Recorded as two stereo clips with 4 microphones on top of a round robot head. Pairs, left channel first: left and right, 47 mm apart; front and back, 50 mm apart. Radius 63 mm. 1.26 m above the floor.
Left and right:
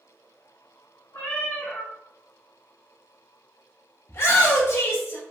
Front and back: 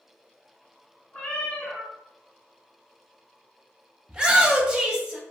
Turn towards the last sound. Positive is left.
turn(degrees=110)